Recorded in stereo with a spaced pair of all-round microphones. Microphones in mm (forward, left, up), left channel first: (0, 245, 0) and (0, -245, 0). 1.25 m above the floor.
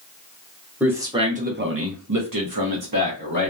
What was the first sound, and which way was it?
A man speaking, 5° right (ahead or behind).